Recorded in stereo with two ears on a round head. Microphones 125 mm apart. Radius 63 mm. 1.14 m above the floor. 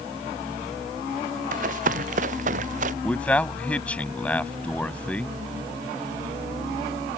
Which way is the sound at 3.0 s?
10° left (ahead or behind).